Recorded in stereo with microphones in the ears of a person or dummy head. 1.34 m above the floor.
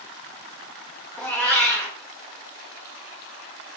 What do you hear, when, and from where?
1.2 s a cat meowing: 10° left (ahead or behind), 0.8 m